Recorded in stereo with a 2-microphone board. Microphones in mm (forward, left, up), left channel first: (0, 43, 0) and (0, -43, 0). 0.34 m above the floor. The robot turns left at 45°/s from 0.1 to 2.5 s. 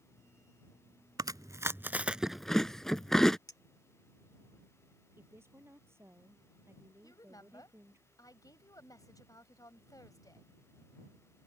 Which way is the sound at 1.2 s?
55° right (ahead or behind).